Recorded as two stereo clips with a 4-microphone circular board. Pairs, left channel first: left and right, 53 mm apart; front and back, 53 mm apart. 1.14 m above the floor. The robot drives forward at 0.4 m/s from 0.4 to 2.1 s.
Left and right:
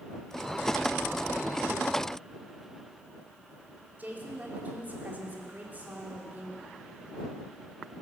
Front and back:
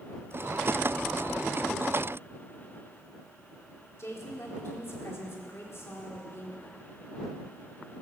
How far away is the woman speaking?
About 2.5 m.